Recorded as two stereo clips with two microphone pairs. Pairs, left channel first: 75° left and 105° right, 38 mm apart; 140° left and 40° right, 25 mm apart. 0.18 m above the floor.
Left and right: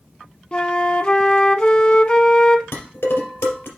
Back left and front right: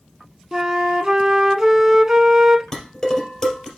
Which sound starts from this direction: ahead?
A flute, at 0.5 s.